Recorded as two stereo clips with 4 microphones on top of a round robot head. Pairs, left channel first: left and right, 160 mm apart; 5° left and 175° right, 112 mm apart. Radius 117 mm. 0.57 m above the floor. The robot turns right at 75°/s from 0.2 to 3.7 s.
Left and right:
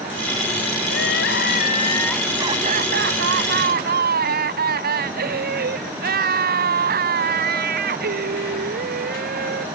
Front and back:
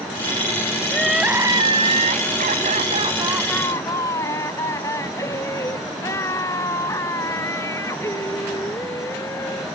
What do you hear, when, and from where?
0.9 s crying: 85° left; by 9.7 s 65° right